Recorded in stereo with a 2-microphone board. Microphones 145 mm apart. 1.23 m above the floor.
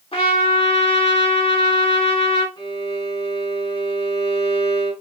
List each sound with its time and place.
0.1 s a trumpet: 40° left (ahead or behind), 1.0 m
2.6 s a violin: 30° left (ahead or behind), 1.4 m